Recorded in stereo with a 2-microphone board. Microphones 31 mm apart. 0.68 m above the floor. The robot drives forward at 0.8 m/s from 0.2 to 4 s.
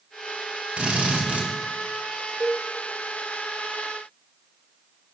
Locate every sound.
0.8 s a drill: 45° right (ahead or behind), 1.6 m; by 1.5 s 55° right (ahead or behind), 1.4 m
2.4 s a cowbell: 60° right (ahead or behind), 1.1 m; by 2.6 s 70° right (ahead or behind), 1.0 m